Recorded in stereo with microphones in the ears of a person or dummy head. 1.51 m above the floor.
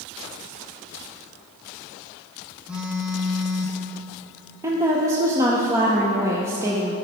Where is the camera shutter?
No camera shutter in this recording.